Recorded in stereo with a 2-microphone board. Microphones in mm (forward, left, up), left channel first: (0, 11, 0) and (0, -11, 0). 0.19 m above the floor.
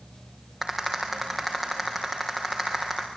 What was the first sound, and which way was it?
A rattle, 5° left (ahead or behind).